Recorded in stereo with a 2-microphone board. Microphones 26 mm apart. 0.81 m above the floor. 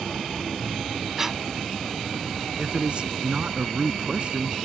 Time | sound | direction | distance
1.2 | breathing | 15° right (ahead or behind) | ?
2.6 | a man speaking | 40° right (ahead or behind) | ?